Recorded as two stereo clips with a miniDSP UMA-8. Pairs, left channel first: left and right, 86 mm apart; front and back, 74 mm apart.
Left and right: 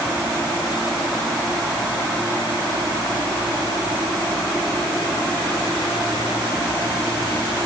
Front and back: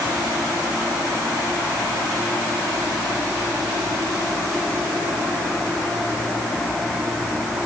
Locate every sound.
Only background noise.